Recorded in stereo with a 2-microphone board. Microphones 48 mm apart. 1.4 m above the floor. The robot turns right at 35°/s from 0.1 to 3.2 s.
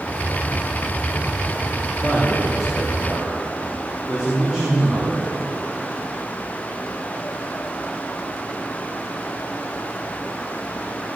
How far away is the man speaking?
About 3 m.